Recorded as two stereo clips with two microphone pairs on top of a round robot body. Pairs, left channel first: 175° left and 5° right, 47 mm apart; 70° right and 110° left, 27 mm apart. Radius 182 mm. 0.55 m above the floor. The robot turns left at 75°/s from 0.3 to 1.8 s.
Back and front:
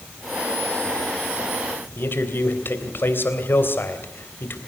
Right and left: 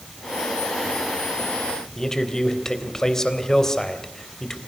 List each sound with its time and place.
2.0 s a man speaking: 140° right, 3.5 m